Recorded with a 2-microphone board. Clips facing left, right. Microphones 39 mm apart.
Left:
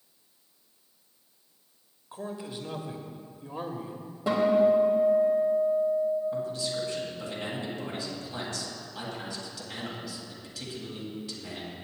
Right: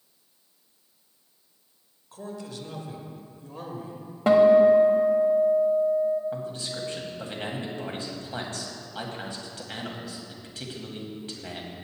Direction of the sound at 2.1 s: 20° left (ahead or behind).